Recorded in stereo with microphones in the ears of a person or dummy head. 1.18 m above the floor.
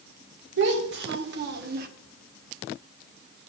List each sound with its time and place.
0.6 s a child speaking: 75° right (ahead or behind), 2.5 m; by 1.9 s 60° right (ahead or behind), 1.2 m